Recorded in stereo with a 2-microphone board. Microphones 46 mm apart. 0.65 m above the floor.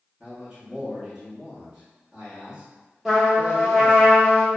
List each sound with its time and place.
0.2 s a man speaking: 15° right (ahead or behind), 0.9 m
3.0 s a trumpet: centre (ahead or behind), 0.9 m